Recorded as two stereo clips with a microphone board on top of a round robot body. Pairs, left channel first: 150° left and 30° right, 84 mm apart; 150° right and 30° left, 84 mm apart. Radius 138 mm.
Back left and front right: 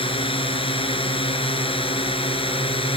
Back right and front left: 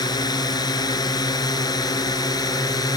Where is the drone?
170° left; by 3.0 s 165° left.